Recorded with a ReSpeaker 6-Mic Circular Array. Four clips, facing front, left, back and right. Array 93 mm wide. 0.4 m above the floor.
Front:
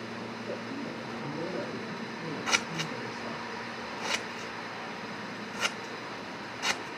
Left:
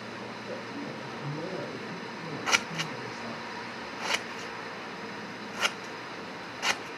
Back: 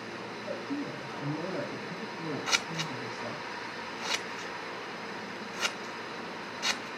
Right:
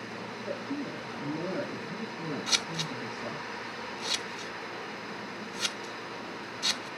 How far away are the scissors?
About 0.6 m.